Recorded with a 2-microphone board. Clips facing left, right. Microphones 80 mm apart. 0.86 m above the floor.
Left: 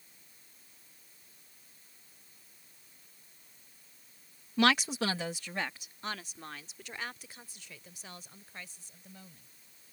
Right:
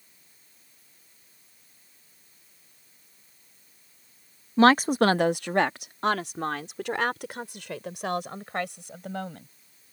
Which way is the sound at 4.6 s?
30° right (ahead or behind).